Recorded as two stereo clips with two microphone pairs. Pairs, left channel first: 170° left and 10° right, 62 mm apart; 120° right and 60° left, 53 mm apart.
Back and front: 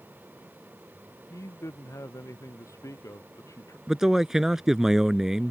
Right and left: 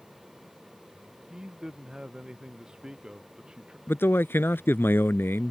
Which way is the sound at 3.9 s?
90° right.